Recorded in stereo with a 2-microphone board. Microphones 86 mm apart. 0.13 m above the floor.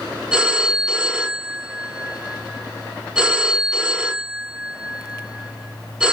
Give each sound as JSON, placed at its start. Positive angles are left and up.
{"t": 0.3, "sound": "a phone ringing", "side_deg": -10, "distance_m": 0.9}